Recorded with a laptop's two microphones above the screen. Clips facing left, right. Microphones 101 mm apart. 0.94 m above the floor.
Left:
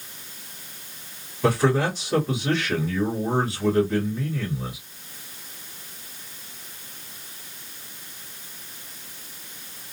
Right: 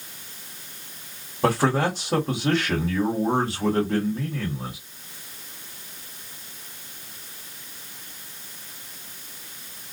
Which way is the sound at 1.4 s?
60° right (ahead or behind).